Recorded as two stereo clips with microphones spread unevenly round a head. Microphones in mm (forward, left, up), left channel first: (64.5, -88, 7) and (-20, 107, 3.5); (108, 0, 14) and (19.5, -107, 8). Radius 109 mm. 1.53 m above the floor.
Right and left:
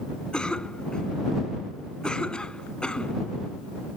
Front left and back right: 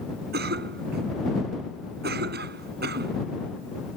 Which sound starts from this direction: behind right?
A cough, at 0.3 s.